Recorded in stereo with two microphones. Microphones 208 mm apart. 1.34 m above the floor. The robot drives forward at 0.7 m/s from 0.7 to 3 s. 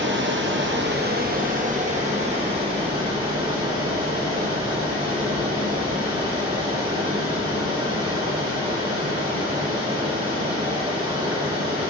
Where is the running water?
60° right (ahead or behind), 1.0 m; by 11.9 s 20° right (ahead or behind), 2.5 m.